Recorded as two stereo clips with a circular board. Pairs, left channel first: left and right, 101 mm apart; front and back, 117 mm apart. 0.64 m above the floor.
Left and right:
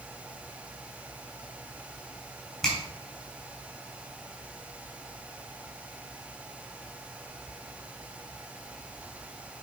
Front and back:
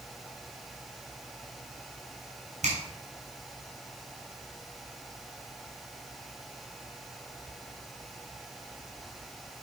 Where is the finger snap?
175° left, 3 m.